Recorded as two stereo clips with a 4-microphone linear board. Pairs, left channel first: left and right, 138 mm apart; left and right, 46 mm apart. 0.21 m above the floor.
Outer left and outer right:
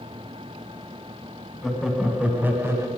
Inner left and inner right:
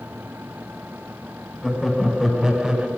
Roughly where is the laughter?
Centre.